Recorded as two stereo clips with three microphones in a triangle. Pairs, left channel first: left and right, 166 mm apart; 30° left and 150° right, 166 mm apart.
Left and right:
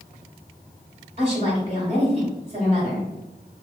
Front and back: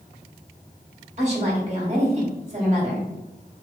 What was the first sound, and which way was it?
A woman speaking, 125° right.